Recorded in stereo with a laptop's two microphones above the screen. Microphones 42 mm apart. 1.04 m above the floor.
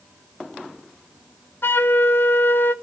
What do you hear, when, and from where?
1.6 s a flute: 55° left (ahead or behind), 0.7 m